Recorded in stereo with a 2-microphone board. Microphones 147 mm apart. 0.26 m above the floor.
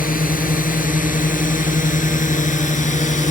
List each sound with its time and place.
0.0 s a drone: 65° left (ahead or behind); by 3.3 s 55° left (ahead or behind)